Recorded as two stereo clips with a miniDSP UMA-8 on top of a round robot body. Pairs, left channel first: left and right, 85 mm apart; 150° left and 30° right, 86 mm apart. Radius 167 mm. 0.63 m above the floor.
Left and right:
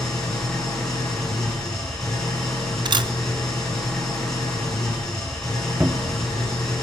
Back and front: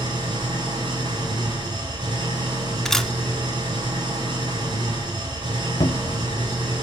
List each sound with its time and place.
0.0 s an engine running: 5° left, 8.5 m
2.9 s a camera shutter: 125° right, 0.9 m
5.8 s a cupboard door: 165° right, 0.8 m